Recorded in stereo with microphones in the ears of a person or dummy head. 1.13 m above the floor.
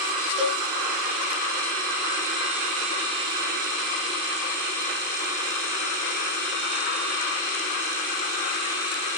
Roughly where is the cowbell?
Right.